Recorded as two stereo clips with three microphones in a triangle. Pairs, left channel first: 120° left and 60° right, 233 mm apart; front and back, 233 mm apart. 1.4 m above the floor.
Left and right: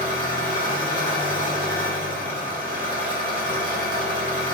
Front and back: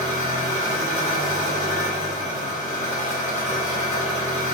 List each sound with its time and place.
0.0 s an engine running: 70° right, 1.3 m